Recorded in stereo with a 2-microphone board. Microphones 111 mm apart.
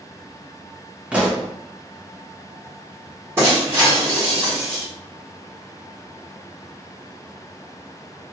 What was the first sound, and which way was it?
A pop, 10° right (ahead or behind).